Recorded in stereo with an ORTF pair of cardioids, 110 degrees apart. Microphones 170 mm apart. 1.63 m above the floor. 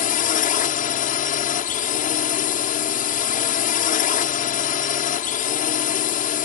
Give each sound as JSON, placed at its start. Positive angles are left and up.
{"t": 0.0, "sound": "a drone", "azimuth_deg": 55}